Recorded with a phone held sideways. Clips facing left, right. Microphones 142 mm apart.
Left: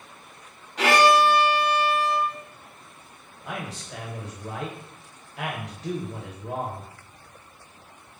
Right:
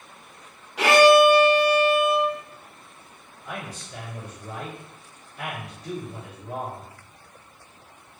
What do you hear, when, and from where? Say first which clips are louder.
0.8 s a violin: right 4 dB; 10° right (ahead or behind), 0.9 m
3.4 s a man speaking: left 1 dB; 85° left, 1.1 m